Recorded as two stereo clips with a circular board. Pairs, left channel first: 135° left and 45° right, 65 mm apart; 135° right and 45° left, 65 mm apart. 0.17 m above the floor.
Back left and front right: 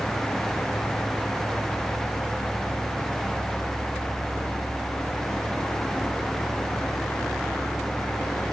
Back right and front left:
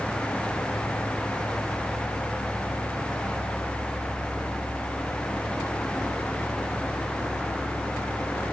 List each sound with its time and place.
Only background noise.